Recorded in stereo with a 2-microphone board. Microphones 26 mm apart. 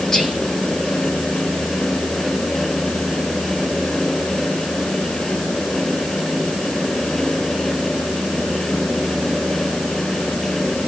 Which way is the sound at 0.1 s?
20° left (ahead or behind).